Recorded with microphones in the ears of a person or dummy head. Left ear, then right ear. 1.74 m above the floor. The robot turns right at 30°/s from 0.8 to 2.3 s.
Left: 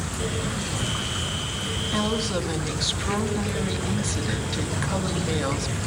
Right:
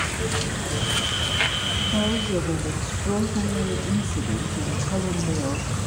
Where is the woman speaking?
55° left (ahead or behind), 2.5 m; by 5.8 s 65° left (ahead or behind), 2.5 m.